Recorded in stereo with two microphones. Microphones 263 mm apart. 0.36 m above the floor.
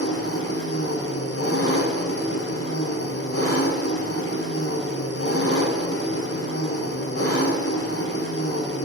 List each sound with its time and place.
0.0 s an engine running: 70° left (ahead or behind), 0.9 m